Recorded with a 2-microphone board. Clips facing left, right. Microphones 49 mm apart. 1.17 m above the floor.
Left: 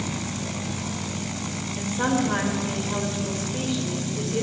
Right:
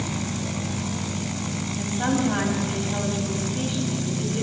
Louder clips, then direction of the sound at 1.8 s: Left 1 dB; 70° left (ahead or behind).